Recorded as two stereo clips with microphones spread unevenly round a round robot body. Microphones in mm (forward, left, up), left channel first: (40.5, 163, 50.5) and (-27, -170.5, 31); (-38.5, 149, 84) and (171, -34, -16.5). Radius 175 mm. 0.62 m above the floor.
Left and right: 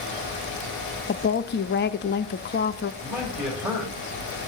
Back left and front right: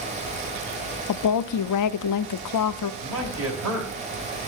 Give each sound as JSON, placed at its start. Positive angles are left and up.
{"t": 1.1, "sound": "a woman speaking", "azimuth_deg": 130, "distance_m": 0.6}
{"t": 3.0, "sound": "a man speaking", "azimuth_deg": -20, "distance_m": 4.0}